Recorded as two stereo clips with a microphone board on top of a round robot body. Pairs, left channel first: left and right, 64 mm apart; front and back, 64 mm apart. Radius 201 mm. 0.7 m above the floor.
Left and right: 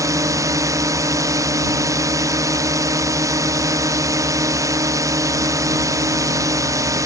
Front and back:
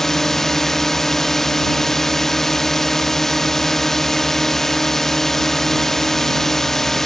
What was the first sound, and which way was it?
A drone, 85° right.